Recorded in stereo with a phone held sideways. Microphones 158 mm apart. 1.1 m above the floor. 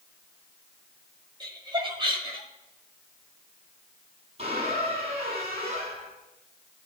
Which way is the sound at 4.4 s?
40° right (ahead or behind).